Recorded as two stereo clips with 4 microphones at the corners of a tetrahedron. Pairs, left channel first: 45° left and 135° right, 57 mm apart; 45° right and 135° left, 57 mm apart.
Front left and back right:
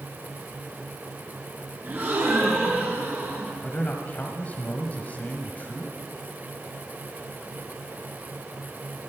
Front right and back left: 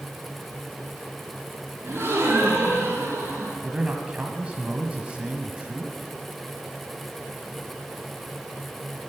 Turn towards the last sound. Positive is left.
turn(degrees=85)